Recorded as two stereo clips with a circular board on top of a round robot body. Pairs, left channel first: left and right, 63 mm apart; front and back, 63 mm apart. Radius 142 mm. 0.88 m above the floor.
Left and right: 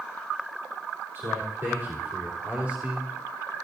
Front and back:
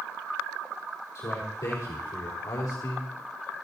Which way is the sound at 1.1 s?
35° right.